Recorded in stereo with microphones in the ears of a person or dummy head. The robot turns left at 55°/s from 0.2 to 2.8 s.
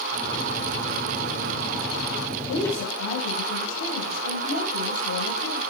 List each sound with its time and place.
2.5 s a woman speaking: 85° left, 3.5 m; by 5.6 s 75° left (ahead or behind), 3.5 m